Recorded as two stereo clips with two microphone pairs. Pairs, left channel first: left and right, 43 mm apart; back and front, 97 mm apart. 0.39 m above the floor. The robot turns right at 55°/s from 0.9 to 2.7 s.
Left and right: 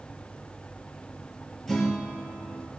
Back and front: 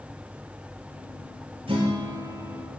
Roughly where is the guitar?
Ahead.